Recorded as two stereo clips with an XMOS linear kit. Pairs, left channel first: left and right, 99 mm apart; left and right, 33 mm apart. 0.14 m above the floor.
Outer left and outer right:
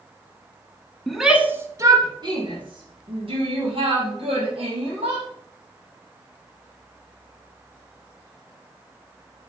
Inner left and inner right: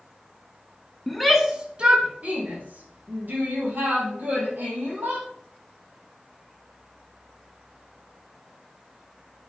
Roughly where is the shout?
Centre.